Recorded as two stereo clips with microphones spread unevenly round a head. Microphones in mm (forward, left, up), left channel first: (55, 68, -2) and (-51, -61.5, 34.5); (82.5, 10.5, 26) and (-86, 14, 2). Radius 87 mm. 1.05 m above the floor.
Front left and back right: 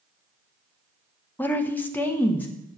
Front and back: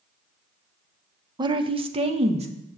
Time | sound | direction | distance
1.4 | a woman speaking | 120° left | 0.7 m